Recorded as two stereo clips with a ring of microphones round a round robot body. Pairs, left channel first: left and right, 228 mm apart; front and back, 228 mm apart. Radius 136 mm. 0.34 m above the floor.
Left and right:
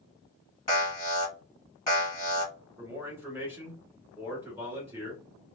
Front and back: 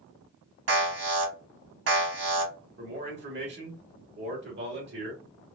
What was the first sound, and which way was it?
An alarm, 165° left.